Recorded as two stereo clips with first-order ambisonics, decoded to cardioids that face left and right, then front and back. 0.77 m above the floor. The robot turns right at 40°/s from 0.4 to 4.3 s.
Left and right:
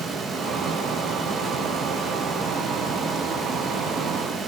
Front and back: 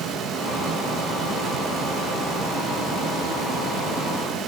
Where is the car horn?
No car horn in this recording.